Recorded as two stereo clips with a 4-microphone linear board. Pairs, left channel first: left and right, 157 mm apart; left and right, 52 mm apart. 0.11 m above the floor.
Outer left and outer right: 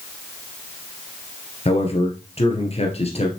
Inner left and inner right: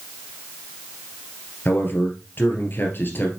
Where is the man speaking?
40° left (ahead or behind), 2 m.